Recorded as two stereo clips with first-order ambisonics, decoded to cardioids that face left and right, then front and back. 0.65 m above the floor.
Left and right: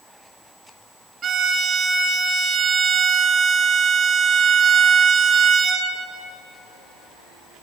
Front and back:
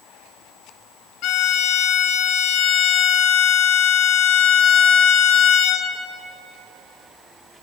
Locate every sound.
1.2 s a violin: 30° right, 1.1 m